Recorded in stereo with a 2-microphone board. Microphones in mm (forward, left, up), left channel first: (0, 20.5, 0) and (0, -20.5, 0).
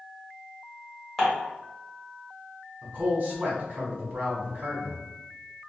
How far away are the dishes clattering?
About 1.3 m.